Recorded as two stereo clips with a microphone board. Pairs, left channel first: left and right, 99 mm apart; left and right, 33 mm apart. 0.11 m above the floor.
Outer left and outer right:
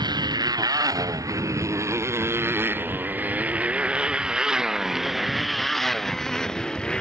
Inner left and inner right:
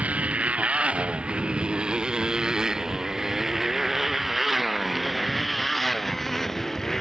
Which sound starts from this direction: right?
A motorcycle, at 0.0 s.